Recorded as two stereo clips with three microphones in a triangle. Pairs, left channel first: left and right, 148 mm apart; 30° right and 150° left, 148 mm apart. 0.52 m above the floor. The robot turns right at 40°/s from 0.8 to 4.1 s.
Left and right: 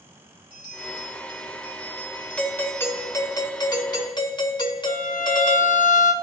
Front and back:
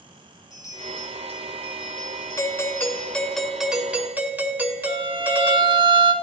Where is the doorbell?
15° left, 1.6 m; by 5.8 s 85° left, 1.6 m.